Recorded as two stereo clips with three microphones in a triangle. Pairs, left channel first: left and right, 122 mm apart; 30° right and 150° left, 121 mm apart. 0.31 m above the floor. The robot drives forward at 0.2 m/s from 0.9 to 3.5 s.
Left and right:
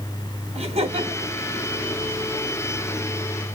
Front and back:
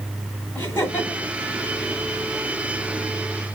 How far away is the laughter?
About 3 m.